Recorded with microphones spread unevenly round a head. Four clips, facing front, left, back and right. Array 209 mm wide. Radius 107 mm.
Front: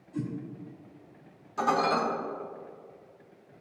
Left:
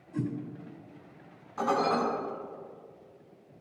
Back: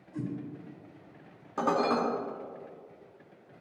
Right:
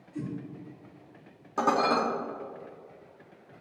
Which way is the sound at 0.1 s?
70° left.